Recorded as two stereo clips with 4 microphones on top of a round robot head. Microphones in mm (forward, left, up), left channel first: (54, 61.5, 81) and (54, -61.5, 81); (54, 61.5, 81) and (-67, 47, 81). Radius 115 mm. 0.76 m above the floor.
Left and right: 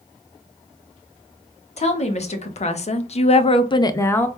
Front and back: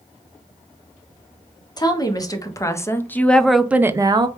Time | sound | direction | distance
1.8 | a woman speaking | 65° left | 1.4 m